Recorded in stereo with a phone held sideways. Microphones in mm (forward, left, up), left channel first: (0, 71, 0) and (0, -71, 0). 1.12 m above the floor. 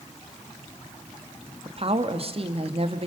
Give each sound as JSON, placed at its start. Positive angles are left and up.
{"t": 1.6, "sound": "a woman speaking", "side_deg": -45, "distance_m": 1.7}